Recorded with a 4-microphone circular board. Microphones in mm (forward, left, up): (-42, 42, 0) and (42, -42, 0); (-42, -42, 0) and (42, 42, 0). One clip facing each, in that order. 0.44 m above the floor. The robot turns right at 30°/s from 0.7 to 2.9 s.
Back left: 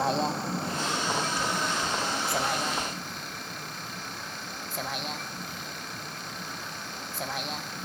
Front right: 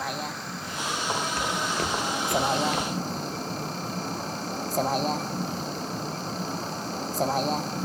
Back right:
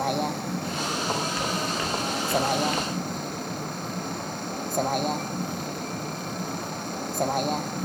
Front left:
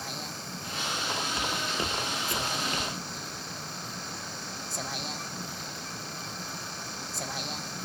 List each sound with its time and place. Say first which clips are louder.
0.0 s a vehicle: back left 6 dB, back right 14 dB; 165° right; by 7.9 s 95° right
1.4 s footsteps: front right 1 dB, back right 4 dB; 15° right; by 3.0 s 10° right